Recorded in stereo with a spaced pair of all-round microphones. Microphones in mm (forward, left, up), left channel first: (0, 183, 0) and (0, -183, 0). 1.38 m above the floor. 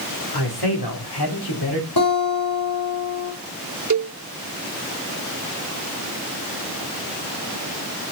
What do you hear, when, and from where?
0.3 s a man speaking: 70° left (ahead or behind), 4 m; by 1.9 s 80° left, 4.5 m
2.0 s a guitar: 65° left (ahead or behind), 5.5 m
3.9 s a cowbell: 50° right (ahead or behind), 0.6 m